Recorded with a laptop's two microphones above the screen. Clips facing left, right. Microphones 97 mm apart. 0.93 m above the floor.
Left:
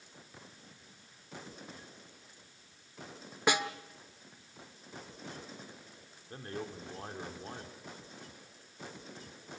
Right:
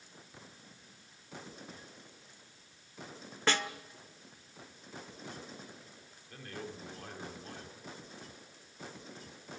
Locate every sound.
3.5 s a snare drum: 10° left (ahead or behind), 1.4 m
6.3 s a man speaking: 30° left (ahead or behind), 2.5 m